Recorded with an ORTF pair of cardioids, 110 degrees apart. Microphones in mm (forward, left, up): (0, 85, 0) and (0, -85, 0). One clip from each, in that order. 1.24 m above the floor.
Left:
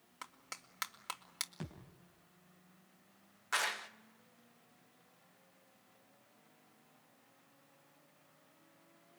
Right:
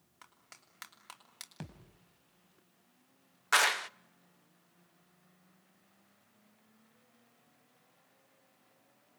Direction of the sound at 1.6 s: 25° right.